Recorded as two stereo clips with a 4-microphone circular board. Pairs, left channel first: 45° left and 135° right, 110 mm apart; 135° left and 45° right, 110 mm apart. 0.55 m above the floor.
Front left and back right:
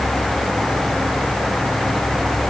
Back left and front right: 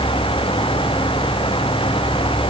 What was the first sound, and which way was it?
Only background noise.